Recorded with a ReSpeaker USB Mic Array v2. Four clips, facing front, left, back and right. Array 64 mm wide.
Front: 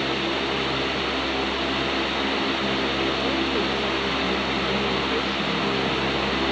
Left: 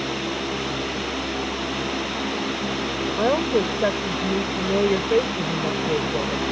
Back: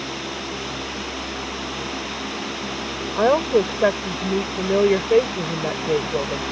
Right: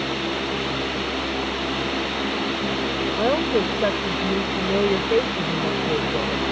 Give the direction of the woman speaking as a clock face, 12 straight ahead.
6 o'clock.